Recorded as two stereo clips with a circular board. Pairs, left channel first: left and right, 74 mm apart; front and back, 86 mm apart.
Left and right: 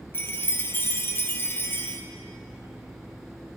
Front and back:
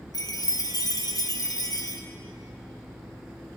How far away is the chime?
About 0.9 m.